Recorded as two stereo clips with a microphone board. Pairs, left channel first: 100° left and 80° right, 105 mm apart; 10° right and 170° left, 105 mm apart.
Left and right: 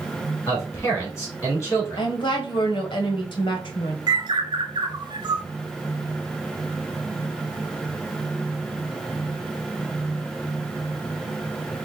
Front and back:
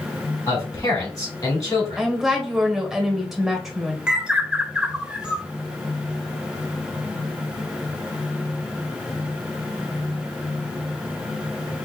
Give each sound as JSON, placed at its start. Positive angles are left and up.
{"t": 0.5, "sound": "a man speaking", "azimuth_deg": 40, "distance_m": 3.0}
{"t": 2.0, "sound": "a woman speaking", "azimuth_deg": 85, "distance_m": 1.4}
{"t": 4.1, "sound": "a bird", "azimuth_deg": -110, "distance_m": 0.7}